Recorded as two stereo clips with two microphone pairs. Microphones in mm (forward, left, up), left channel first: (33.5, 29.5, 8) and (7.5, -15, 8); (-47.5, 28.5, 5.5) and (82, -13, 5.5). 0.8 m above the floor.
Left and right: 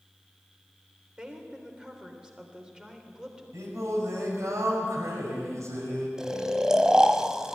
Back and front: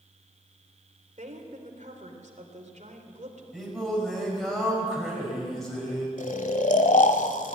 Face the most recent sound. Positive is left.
turn(degrees=165)